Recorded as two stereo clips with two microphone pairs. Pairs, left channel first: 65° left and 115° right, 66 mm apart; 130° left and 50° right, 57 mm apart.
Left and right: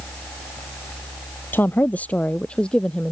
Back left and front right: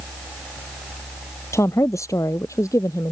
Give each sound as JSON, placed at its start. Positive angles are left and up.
{"t": 1.5, "sound": "a woman speaking", "azimuth_deg": 115}